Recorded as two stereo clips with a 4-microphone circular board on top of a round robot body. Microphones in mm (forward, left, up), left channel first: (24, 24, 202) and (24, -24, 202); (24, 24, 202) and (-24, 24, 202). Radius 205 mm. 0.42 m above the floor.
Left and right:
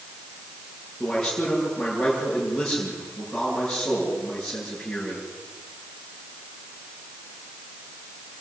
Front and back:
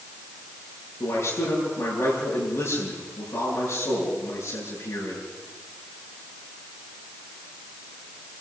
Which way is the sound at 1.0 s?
5° left.